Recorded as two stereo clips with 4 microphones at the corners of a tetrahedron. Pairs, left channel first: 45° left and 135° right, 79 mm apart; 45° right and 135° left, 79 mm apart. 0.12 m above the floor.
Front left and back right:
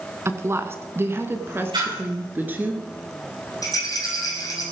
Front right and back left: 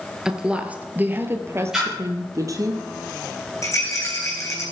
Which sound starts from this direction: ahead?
A rattle, at 3.6 s.